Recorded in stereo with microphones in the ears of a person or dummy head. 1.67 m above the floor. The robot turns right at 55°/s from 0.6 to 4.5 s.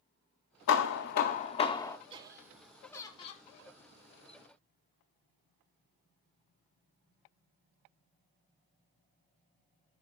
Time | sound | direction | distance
0.7 | hammering | 90° left | 0.7 m
2.1 | laughter | 35° right | 1.3 m